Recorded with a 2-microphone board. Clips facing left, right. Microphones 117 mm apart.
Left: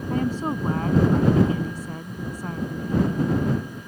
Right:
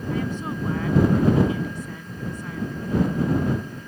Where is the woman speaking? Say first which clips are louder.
Left 3 dB; 40° left (ahead or behind).